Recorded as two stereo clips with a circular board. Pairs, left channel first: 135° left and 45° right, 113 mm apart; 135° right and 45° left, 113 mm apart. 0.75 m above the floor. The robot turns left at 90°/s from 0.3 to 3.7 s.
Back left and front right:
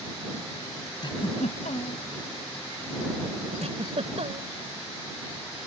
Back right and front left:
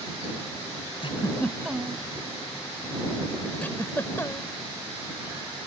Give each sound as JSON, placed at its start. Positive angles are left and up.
{"t": 1.0, "sound": "a giggle", "azimuth_deg": -175}
{"t": 3.6, "sound": "a giggle", "azimuth_deg": -60}